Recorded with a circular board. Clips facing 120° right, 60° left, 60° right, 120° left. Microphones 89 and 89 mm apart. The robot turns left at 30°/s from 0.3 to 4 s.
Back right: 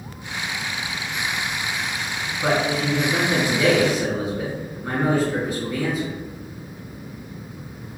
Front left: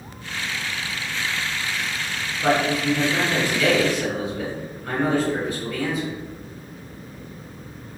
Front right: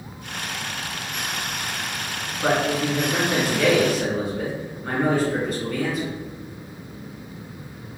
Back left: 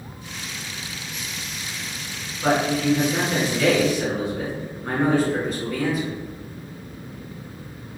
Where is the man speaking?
115° right, 1.8 m; by 6.1 s 160° right, 1.8 m.